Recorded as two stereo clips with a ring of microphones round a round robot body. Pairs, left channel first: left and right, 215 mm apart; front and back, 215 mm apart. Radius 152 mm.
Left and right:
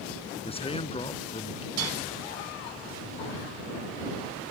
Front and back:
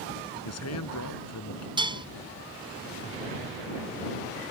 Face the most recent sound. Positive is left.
turn(degrees=-110)